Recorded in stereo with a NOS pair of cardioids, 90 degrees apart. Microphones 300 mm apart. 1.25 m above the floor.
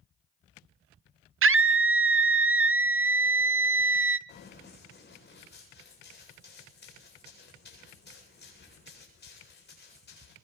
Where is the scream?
45° right, 0.6 m.